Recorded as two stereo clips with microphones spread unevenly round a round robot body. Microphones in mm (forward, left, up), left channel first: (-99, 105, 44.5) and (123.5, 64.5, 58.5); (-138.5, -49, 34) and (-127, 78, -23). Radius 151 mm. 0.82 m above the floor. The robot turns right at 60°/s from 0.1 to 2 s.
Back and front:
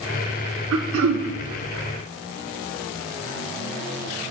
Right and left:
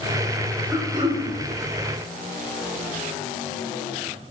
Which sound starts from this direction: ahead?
Throat clearing, at 0.7 s.